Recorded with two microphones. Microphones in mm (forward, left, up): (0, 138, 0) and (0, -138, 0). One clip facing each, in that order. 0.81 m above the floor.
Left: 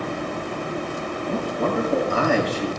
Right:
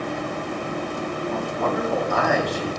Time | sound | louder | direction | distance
1.3 | a man speaking | left 3 dB | 35° left (ahead or behind) | 5.5 m